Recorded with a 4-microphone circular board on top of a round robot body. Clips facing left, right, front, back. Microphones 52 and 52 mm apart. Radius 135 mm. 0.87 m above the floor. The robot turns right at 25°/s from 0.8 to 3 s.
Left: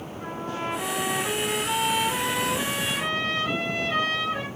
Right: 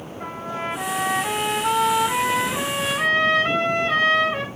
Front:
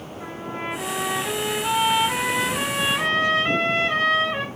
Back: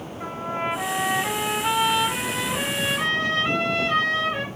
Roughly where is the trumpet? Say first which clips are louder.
Right 2 dB, back 4 dB; behind right.